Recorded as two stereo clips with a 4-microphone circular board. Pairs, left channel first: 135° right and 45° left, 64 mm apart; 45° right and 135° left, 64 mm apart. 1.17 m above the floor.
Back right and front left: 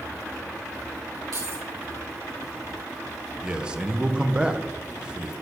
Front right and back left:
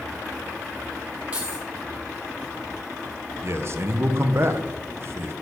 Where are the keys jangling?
65° left, 3 m.